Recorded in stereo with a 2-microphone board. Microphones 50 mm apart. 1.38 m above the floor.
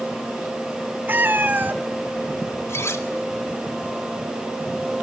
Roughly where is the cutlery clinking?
Left.